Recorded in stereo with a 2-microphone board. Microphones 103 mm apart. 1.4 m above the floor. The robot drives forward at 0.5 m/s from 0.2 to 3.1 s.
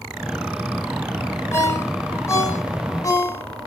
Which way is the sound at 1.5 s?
25° left (ahead or behind).